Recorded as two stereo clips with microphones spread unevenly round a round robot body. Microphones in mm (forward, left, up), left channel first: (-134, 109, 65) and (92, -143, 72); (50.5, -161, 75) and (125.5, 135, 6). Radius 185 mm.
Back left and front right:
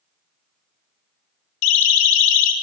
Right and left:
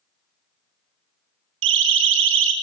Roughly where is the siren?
Behind left.